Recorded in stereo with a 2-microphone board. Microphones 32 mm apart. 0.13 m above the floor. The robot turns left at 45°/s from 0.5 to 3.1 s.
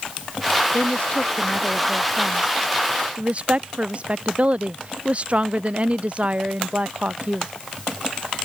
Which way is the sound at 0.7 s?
65° left.